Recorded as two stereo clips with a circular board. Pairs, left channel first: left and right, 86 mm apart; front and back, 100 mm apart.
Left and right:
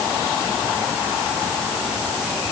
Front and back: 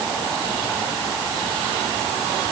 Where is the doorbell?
No doorbell in this recording.